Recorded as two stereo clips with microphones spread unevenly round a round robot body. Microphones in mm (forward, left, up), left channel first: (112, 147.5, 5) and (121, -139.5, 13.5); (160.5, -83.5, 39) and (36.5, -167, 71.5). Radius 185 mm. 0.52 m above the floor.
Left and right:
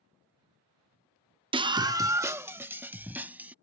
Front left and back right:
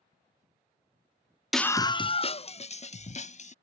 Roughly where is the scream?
Ahead right.